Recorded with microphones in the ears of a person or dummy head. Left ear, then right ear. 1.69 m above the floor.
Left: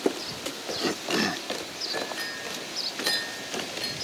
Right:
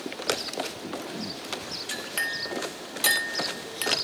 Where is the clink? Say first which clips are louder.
Right 3 dB; 40° right (ahead or behind), 3 m.